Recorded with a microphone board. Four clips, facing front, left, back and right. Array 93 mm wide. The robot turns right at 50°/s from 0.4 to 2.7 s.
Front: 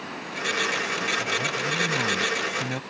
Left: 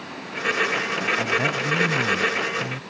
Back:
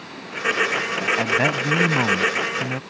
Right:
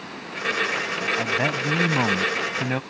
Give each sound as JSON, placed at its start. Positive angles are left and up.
{"t": 1.2, "sound": "a man speaking", "azimuth_deg": -175}